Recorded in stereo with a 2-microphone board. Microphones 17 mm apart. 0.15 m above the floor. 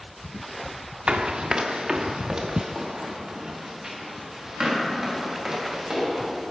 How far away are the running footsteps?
About 1.1 m.